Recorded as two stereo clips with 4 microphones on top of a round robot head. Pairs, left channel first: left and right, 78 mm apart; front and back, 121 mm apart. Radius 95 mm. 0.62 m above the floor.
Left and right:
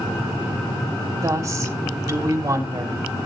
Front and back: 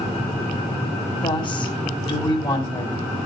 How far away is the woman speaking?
About 2 m.